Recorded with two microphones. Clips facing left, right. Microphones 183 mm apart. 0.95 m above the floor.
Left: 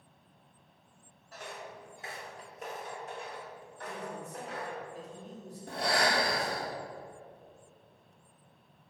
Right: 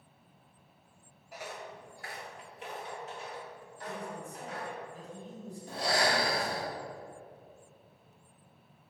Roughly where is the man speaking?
Left.